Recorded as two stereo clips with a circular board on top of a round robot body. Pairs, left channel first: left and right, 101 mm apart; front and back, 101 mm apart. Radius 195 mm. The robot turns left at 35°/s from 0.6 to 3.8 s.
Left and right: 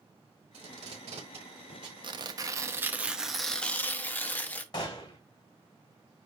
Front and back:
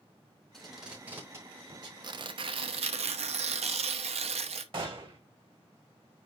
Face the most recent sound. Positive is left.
turn(degrees=140)